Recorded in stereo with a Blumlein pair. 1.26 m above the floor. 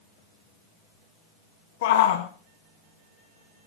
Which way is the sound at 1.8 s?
50° left.